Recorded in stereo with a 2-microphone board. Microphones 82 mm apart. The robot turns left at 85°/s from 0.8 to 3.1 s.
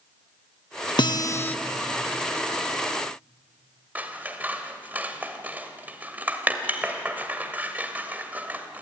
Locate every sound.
1.0 s a guitar: 70° left, 0.8 m; by 1.6 s 20° left, 0.8 m
4.0 s scissors: 20° right (ahead or behind), 1.5 m